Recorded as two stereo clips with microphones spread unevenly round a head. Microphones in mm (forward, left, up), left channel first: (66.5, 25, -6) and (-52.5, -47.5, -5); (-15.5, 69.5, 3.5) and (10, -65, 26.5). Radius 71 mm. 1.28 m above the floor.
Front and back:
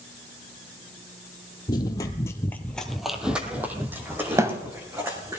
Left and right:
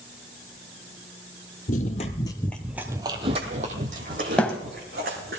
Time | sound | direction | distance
1.7 | running footsteps | 85° left | 1.7 m
4.4 | a thud | 165° right | 1.1 m